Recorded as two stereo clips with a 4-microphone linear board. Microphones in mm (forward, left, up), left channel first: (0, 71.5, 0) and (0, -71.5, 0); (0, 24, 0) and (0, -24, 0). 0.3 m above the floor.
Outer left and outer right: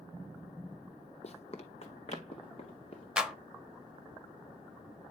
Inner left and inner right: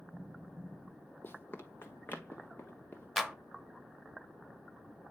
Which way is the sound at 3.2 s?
5° right (ahead or behind).